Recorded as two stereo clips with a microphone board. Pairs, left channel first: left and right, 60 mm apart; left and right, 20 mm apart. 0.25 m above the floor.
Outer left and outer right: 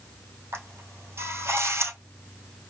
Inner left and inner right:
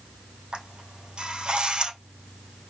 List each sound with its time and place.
0.5 s a camera shutter: 55° right (ahead or behind), 3 m